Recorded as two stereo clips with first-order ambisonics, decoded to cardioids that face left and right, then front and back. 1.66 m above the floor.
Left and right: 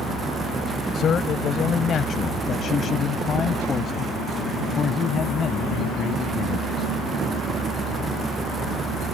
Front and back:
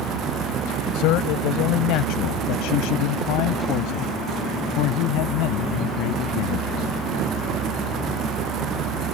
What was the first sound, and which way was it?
A man speaking, 30° left.